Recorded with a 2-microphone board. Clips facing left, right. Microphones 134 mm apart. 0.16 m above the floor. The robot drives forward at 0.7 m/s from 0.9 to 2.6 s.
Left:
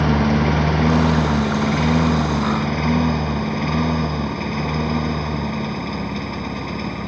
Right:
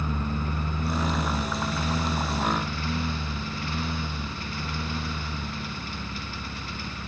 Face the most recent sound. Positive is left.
turn(degrees=55)  # may be behind; listen again after turning